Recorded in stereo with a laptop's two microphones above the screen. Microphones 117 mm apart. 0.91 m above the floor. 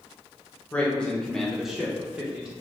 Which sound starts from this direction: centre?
A man speaking, at 0.7 s.